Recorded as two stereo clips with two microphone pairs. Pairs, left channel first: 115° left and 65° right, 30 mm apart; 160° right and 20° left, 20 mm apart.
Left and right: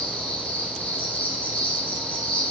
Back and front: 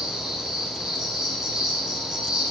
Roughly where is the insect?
Left.